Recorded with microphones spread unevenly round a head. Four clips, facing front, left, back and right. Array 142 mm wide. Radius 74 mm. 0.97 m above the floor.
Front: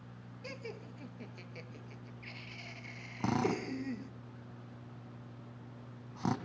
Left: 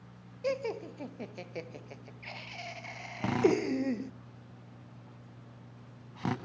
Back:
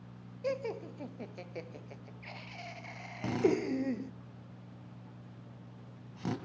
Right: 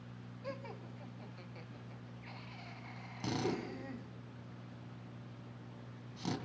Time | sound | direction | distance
0.4 | laughter | 90° left | 0.8 m
3.2 | a drill | 35° left | 3 m